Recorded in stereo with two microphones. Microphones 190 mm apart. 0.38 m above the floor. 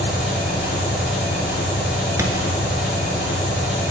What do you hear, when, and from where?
0.0 s an engine running: 60° left (ahead or behind), 1.4 m
2.2 s a thud: 15° right (ahead or behind), 0.6 m